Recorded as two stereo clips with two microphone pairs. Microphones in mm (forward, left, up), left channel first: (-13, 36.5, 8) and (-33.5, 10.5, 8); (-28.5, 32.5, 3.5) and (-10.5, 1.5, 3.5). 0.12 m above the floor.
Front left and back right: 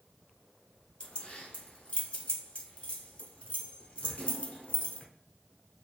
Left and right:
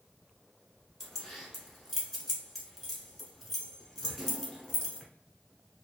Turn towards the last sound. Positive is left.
turn(degrees=40)